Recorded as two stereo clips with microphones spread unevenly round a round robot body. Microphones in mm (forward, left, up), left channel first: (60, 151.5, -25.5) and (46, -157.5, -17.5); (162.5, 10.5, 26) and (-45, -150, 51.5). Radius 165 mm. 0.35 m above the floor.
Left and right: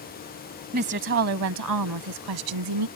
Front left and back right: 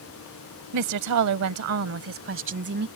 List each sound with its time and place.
0.7 s a woman speaking: 155° right; by 2.9 s 90° right